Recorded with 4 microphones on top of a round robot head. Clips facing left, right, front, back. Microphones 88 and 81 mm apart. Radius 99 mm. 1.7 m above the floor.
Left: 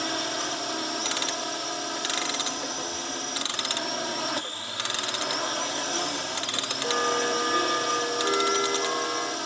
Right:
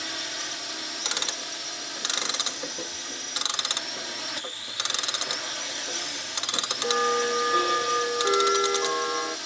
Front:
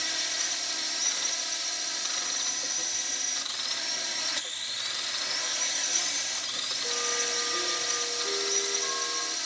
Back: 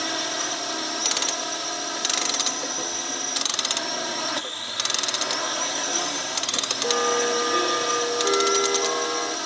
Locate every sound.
0.0 s a drone: 145° left
1.1 s ticking: 165° right